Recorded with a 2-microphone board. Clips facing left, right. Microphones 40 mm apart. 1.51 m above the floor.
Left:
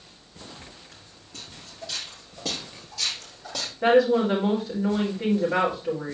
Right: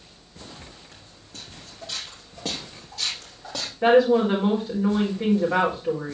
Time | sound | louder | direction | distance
0.9 | footsteps | right 1 dB | 45° right (ahead or behind) | 4.5 m
3.8 | a woman speaking | right 2 dB | 40° right (ahead or behind) | 4 m